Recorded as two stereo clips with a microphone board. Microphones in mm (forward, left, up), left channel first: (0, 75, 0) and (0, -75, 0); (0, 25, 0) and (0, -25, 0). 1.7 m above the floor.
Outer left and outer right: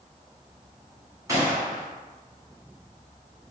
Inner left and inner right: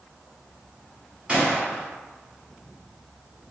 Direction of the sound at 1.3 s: 20° right (ahead or behind).